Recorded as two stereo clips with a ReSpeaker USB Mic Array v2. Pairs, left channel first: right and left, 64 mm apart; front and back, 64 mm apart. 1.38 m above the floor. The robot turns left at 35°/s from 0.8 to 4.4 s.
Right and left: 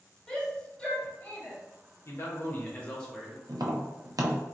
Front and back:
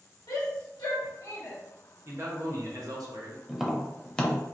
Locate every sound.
0.3 s a shout: 15° right, 1.5 m; by 1.6 s 40° right, 1.5 m
2.0 s a man speaking: 135° right, 0.9 m; by 3.4 s straight behind, 0.9 m
3.5 s tapping: 100° left, 0.6 m; by 4.5 s 65° left, 0.6 m